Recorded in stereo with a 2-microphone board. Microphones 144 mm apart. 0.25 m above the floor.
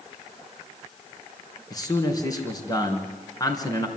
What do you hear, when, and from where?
1.7 s a man speaking: 25° left (ahead or behind), 3 m